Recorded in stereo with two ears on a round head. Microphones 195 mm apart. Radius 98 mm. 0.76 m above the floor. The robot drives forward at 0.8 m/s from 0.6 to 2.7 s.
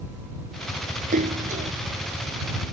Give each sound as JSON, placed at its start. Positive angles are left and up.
{"t": 1.1, "sound": "a splash", "side_deg": -40}